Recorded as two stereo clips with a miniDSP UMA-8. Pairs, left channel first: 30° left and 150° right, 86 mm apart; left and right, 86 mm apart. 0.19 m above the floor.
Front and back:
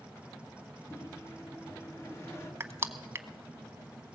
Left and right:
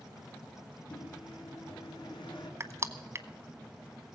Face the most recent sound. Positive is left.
turn(degrees=-120)